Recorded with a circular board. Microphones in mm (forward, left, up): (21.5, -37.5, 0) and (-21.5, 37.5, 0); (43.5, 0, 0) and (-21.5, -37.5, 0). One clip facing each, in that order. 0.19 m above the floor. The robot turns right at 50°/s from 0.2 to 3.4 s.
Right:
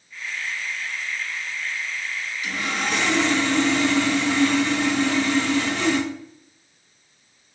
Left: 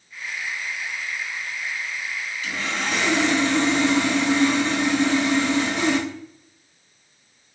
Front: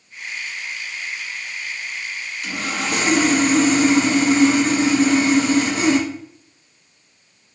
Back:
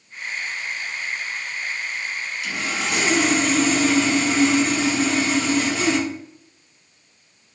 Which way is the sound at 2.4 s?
5° left.